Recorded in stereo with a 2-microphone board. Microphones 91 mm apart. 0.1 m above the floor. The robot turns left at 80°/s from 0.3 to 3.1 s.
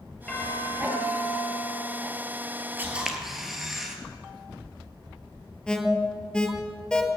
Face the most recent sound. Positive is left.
turn(degrees=10)  # may be behind; listen again after turning